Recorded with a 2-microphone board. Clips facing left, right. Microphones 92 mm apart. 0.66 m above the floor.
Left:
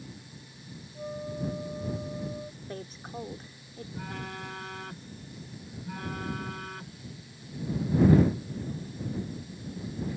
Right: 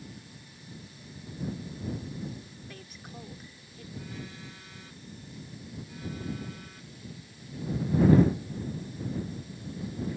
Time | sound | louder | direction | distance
0.9 | a flute | left 8 dB | 75° left (ahead or behind) | ?
2.6 | a woman speaking | left 6 dB | 35° left (ahead or behind) | ?
4.0 | a phone buzzing | left 4 dB | 65° left (ahead or behind) | ?